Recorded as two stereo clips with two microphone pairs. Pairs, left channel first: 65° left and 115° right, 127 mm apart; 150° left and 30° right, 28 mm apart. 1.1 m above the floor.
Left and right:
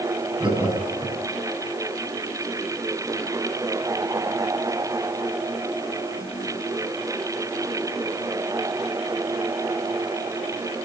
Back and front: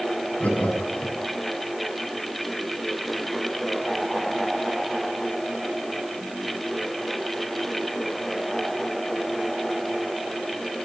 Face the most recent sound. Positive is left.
turn(degrees=-170)